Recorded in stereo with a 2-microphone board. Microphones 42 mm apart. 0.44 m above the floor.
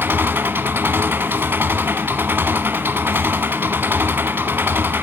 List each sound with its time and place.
0.0 s an engine running: 55° right (ahead or behind), 1.2 m